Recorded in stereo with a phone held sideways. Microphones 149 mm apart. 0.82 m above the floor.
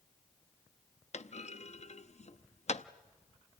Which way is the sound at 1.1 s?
50° left (ahead or behind).